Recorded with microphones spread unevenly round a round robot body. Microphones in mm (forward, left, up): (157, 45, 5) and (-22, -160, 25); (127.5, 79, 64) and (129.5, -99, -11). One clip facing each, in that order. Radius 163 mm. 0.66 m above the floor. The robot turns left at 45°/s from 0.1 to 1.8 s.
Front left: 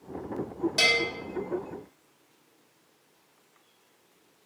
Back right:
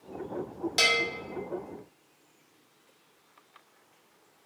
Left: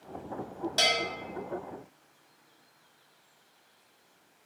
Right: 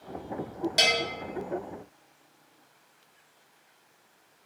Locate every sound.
0.8 s a bell: 70° right, 1.1 m; by 1.0 s 80° right, 1.1 m